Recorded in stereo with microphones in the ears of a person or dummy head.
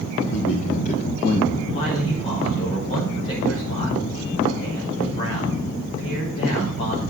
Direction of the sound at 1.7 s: 35° left (ahead or behind).